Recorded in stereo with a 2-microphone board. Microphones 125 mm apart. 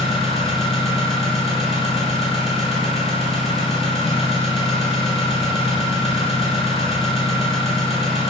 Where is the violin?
I don't hear a violin.